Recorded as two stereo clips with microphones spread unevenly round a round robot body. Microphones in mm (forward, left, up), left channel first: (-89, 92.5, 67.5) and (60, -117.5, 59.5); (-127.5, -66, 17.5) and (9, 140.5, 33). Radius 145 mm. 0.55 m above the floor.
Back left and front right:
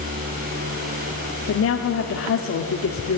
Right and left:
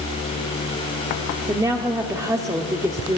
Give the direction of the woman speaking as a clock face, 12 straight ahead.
8 o'clock.